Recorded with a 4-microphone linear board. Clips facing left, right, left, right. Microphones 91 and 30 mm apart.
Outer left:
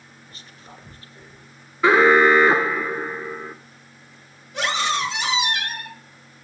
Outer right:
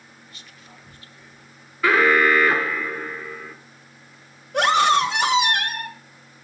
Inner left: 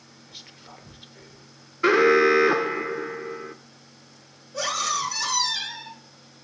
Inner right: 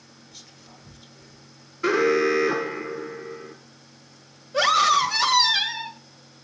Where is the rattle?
No rattle in this recording.